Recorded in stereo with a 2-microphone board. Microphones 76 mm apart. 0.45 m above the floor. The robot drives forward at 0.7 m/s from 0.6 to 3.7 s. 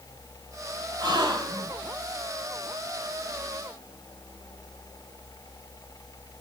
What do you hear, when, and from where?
1.0 s a gasp: 70° right (ahead or behind), 2 m; by 1.7 s 75° right (ahead or behind), 2.0 m